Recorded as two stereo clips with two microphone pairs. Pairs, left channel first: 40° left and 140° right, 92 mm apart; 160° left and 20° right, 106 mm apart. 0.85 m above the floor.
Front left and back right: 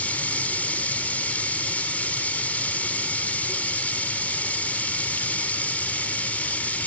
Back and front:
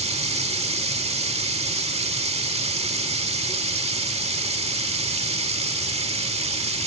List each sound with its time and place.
0.0 s running water: 35° right, 1.6 m